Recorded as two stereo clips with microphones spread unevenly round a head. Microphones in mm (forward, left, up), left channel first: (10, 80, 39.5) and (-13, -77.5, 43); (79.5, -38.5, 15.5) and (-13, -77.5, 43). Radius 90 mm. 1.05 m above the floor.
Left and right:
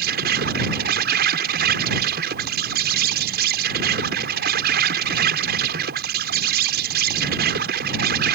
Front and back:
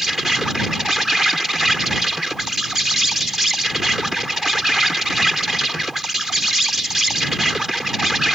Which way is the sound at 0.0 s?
70° right.